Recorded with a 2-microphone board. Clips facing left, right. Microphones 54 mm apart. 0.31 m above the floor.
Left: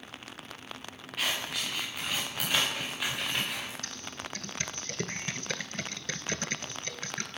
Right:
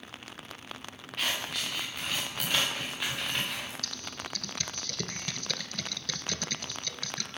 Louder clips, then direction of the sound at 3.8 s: Even; 30° left (ahead or behind).